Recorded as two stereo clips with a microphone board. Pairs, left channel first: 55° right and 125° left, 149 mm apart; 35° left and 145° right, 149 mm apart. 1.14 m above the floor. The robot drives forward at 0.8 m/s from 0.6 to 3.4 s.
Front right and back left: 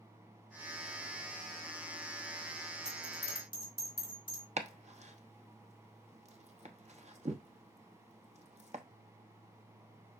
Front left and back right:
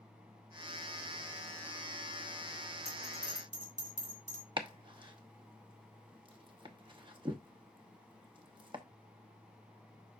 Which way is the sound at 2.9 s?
105° right.